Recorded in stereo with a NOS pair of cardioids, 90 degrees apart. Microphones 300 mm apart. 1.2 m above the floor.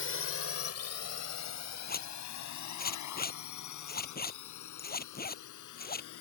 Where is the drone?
45° left; by 6.2 s 80° left.